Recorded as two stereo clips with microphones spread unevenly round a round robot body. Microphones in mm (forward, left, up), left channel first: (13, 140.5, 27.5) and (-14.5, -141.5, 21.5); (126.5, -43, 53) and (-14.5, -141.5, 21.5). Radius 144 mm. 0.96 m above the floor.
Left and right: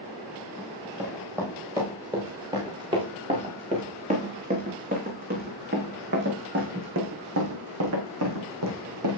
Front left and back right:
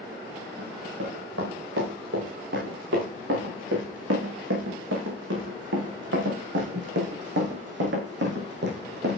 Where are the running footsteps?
Straight behind, 7 m; by 9.2 s 120° right, 4 m.